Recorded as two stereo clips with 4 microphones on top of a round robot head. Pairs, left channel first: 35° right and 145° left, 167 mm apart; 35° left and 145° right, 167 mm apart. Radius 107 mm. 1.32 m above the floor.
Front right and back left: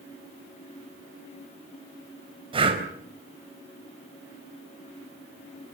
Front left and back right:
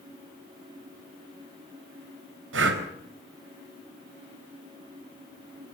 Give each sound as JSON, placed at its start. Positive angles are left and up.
{"t": 2.5, "sound": "breathing", "azimuth_deg": -150, "distance_m": 4.0}